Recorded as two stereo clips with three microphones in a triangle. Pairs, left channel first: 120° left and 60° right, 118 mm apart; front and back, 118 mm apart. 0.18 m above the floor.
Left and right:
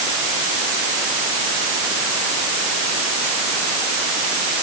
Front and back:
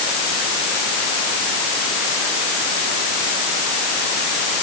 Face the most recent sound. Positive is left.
No sound to turn to.